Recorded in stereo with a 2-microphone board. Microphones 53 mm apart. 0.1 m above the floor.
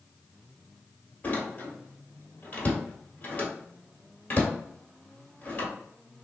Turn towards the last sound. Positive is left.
turn(degrees=30)  # may be behind; listen again after turning